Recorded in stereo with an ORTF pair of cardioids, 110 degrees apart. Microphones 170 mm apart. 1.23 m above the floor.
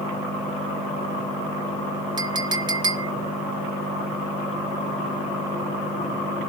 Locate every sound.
2.2 s a clink: 25° right, 1.6 m